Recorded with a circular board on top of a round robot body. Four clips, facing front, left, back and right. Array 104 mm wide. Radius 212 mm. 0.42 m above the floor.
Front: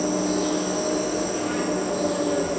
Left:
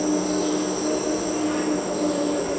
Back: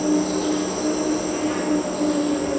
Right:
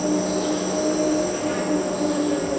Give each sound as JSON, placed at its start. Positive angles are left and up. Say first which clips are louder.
{"t": 0.0, "sound": "an insect", "louder": "even, back 3 dB", "azimuth_deg": -160, "distance_m": 1.8}